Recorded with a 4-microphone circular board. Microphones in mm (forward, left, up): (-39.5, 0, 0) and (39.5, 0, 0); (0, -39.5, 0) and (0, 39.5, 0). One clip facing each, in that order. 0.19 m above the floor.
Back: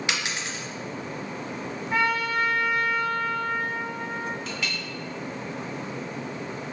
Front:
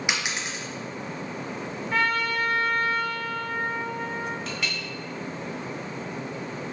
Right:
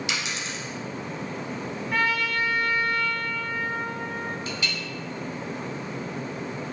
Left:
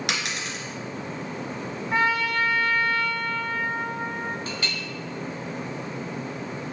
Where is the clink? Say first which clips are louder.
Even, even; 90° left, 0.8 m.